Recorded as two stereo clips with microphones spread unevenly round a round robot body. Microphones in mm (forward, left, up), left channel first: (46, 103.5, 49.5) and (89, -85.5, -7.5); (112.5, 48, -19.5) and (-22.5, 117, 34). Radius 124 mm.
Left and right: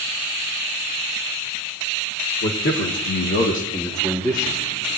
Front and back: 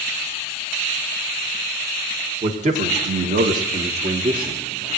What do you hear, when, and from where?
2.4 s a man speaking: 105° left, 2.0 m; by 4.6 s 135° right, 1.6 m